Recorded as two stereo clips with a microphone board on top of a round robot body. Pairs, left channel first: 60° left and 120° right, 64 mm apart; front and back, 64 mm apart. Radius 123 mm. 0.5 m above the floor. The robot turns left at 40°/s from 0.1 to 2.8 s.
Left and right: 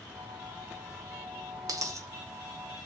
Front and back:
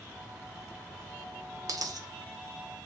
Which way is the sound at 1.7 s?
145° right.